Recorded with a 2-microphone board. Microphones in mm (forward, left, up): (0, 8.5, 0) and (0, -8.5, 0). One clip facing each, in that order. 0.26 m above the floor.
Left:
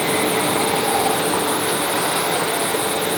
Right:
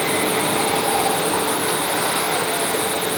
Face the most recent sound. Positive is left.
No sound to turn to.